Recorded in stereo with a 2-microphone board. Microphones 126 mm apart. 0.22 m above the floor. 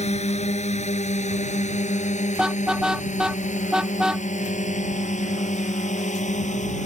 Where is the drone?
60° left (ahead or behind); by 6.9 s 70° left (ahead or behind).